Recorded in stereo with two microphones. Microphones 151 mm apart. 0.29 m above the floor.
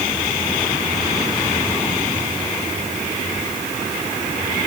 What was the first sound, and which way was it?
Only background noise.